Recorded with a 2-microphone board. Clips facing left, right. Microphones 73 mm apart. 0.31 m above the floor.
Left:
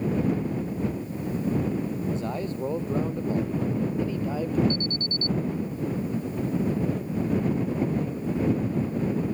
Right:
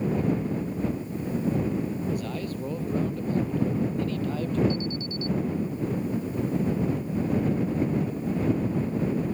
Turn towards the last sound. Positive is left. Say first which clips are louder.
# even
turn(degrees=-5)  # may be behind; listen again after turning